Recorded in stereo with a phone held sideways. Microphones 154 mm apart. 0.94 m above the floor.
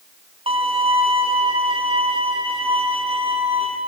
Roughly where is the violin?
Right.